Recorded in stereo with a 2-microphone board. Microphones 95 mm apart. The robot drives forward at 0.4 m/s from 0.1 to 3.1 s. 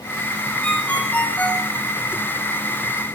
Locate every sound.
0.6 s a ringtone: 15° left (ahead or behind), 7 m